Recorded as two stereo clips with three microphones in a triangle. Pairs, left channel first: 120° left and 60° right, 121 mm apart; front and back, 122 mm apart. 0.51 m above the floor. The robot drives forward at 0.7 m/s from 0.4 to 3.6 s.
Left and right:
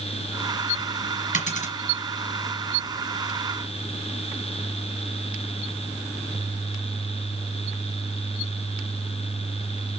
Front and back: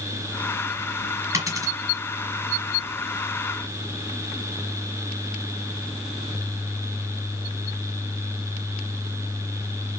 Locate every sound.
1.3 s a dropped coin: 115° left, 4 m